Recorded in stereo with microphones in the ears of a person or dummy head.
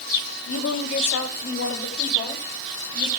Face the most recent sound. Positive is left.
turn(degrees=20)  # may be behind; listen again after turning